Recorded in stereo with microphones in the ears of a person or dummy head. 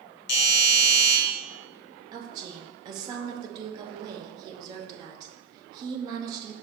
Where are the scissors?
I don't hear scissors.